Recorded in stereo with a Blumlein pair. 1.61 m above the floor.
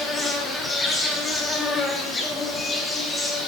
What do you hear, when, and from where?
0.0 s an insect: 10° left, 0.9 m